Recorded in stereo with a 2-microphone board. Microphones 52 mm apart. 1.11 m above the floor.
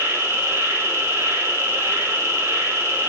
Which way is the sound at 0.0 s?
55° right (ahead or behind).